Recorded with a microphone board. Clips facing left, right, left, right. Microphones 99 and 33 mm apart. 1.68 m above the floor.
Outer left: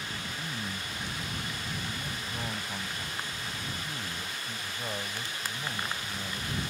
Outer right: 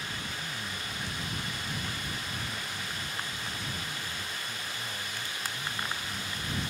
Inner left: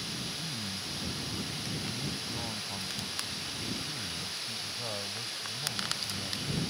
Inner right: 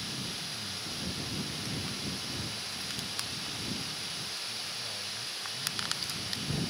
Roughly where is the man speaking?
Left.